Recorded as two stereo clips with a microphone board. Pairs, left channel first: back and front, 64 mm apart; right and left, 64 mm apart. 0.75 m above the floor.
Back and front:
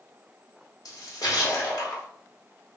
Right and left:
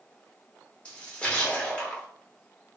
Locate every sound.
0.8 s a splash: 160° right, 1.5 m